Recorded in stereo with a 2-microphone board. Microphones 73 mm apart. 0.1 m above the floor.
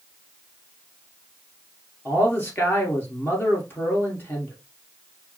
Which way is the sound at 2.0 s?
30° left (ahead or behind).